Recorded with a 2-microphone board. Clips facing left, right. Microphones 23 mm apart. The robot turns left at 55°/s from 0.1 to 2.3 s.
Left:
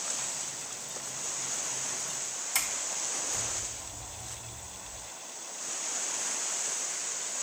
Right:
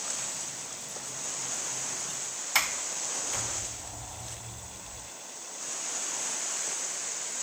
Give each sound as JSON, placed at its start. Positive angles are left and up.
{"t": 2.5, "sound": "a sliding door", "side_deg": -35, "distance_m": 0.7}